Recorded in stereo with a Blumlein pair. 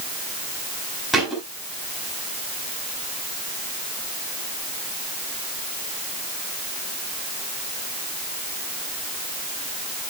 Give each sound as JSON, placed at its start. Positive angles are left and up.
{"t": 1.1, "sound": "a thud", "azimuth_deg": 0, "distance_m": 6.5}